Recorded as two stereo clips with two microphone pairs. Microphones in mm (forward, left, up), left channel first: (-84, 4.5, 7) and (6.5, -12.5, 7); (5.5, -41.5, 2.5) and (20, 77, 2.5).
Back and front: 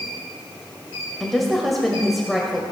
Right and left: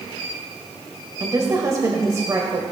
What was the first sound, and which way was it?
A woman speaking, 85° left.